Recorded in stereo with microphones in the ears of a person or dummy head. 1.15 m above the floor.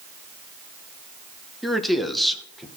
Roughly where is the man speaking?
Centre.